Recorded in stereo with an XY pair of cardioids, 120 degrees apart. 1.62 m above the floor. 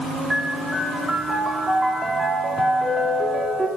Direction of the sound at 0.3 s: 20° right.